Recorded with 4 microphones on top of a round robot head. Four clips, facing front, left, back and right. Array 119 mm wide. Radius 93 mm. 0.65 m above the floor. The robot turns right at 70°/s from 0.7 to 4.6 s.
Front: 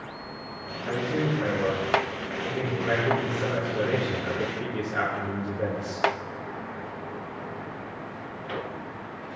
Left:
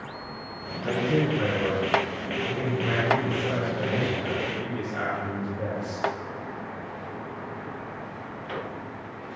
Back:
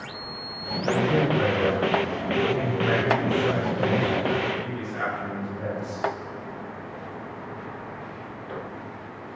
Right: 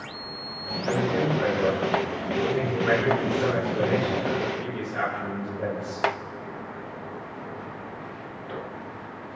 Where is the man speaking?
110° left, 7.5 m; by 6.0 s 10° left, 7.5 m.